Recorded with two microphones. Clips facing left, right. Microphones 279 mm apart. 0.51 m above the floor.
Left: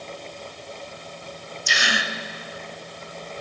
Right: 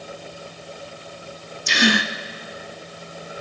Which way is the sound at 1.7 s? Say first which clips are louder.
Right 11 dB; 65° right (ahead or behind).